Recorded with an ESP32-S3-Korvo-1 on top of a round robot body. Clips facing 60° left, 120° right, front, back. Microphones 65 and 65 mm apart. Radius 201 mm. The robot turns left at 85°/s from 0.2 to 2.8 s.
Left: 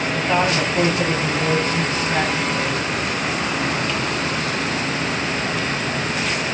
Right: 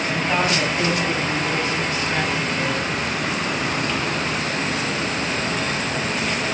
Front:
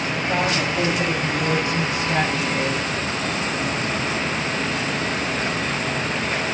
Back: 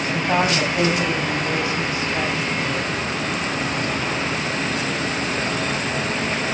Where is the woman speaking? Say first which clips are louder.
Left 2 dB, back 3 dB; 150° left, 6.5 m; by 2.9 s 70° right, 6.5 m.